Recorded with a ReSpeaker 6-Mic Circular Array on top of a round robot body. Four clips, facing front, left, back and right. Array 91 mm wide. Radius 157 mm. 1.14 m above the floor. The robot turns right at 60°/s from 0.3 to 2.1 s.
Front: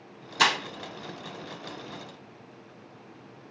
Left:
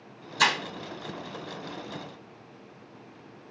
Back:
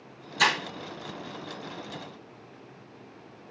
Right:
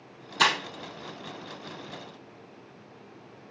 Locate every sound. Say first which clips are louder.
0.4 s breaking glass: right 1 dB, front 1 dB; 40° right, 3 m; by 0.6 s 30° right, 3 m